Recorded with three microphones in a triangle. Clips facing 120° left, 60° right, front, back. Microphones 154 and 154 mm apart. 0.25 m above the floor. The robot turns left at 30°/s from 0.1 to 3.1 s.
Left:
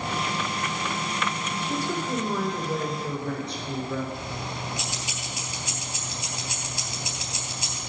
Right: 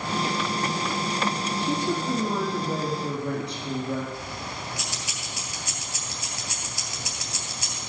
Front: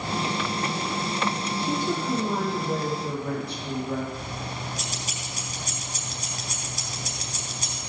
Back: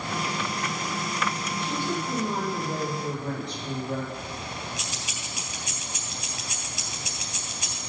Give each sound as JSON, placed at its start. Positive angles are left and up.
{"t": 1.6, "sound": "a woman speaking", "azimuth_deg": -40, "distance_m": 6.5}
{"t": 4.1, "sound": "keys jangling", "azimuth_deg": 50, "distance_m": 3.0}